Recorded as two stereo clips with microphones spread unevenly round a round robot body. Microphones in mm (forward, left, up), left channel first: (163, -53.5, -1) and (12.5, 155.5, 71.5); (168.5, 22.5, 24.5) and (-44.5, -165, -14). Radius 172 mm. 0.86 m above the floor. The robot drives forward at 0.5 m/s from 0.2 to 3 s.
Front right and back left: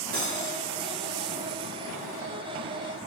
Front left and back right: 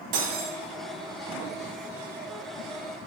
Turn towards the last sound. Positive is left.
turn(degrees=-175)